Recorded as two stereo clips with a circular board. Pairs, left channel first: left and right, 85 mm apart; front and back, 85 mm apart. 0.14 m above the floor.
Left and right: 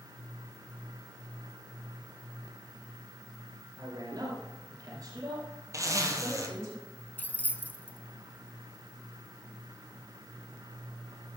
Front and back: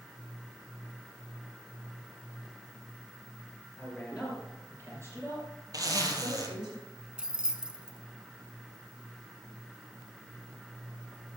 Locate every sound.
3.8 s a man speaking: 85° right, 2.5 m; by 6.7 s 150° right, 5.5 m
5.7 s a zipper: 140° right, 1.9 m
7.2 s keys jangling: 120° left, 1.0 m